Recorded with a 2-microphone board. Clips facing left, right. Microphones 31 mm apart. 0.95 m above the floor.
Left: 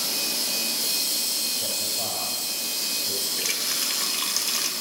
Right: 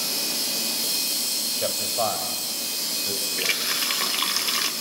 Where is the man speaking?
80° right, 6 m; by 3.3 s 85° right, 8 m.